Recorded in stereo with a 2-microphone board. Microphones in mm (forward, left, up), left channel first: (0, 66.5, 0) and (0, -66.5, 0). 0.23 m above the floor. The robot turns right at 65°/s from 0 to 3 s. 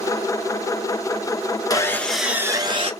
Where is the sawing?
150° left, 0.8 m; by 2.9 s 130° right, 0.8 m.